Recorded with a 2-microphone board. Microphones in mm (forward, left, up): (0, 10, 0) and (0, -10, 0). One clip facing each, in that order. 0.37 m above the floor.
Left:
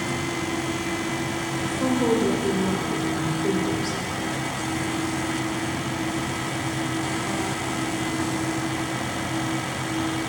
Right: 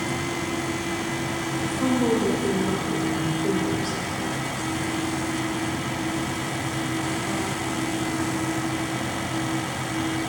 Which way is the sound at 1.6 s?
15° left (ahead or behind).